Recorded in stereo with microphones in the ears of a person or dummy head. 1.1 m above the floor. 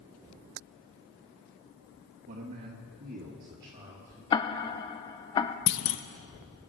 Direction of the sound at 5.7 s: 65° left (ahead or behind).